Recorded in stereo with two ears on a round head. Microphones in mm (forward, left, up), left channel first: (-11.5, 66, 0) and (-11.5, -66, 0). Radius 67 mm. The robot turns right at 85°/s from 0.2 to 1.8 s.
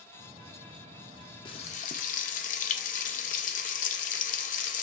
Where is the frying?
30° left (ahead or behind), 0.5 m; by 4.8 s 55° left (ahead or behind), 0.5 m.